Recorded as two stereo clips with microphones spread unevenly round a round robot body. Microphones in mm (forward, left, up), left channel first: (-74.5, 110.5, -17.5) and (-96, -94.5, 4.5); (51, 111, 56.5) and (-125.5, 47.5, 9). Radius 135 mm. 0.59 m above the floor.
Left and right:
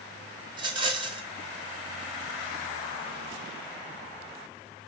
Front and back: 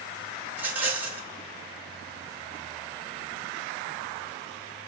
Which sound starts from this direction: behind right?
A rattle, at 0.5 s.